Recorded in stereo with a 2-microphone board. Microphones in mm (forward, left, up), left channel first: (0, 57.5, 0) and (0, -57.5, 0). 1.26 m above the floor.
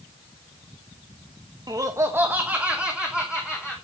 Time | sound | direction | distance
1.7 | laughter | 35° right (ahead or behind) | 1.0 m